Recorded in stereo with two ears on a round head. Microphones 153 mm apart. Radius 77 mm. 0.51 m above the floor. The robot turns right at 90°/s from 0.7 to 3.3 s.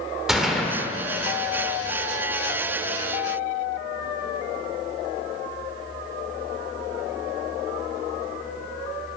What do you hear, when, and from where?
0.3 s a gunshot: 5° right (ahead or behind), 1.8 m; by 0.8 s 10° right (ahead or behind), 1.8 m